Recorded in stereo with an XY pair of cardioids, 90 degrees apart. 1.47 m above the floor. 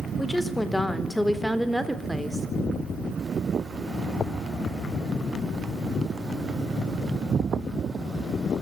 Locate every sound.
0.2 s a woman speaking: 10° left, 4 m; by 2.5 s 15° right, 3.5 m